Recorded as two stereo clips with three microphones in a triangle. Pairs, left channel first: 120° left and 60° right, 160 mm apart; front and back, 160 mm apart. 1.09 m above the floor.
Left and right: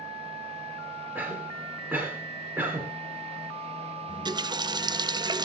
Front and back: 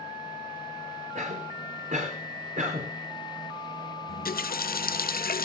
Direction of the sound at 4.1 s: 5° left.